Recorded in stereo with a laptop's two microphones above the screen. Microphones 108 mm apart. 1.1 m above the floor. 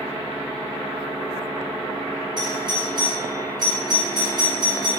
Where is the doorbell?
40° right (ahead or behind), 1.7 m.